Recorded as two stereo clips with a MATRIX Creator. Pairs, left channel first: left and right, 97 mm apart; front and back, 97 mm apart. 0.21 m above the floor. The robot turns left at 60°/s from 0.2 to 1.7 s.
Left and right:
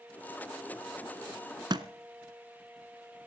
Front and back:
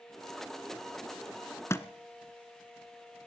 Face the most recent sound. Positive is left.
turn(degrees=-60)